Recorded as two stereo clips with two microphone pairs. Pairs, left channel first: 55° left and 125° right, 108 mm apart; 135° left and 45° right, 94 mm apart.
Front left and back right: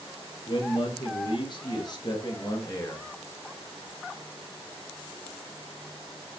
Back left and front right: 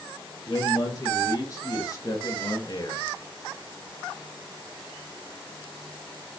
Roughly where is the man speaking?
Left.